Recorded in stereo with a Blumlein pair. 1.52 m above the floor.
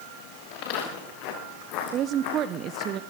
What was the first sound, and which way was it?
Footsteps, 40° left.